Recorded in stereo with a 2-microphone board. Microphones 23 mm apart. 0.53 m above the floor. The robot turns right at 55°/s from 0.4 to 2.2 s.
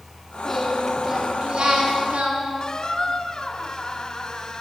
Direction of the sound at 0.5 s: 165° left.